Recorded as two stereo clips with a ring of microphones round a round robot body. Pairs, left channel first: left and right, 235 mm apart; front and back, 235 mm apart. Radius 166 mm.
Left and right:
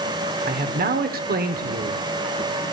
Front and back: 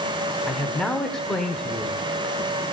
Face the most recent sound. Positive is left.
turn(degrees=-85)